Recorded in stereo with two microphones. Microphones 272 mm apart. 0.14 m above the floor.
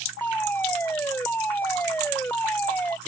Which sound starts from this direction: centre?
A fire alarm, at 0.2 s.